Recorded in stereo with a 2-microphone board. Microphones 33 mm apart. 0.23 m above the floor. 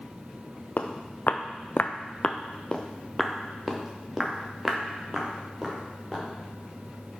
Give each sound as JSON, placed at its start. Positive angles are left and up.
{"t": 0.8, "sound": "footsteps", "side_deg": 70, "distance_m": 1.0}